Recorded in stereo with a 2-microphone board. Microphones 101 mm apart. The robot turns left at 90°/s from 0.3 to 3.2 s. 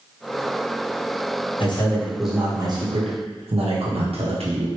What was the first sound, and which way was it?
A man speaking, 55° left.